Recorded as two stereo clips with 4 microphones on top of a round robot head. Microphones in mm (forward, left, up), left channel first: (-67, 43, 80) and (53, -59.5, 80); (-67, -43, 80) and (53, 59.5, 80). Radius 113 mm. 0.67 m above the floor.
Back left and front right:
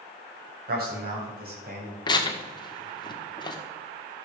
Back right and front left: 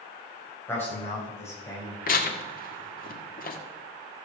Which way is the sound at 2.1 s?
160° right.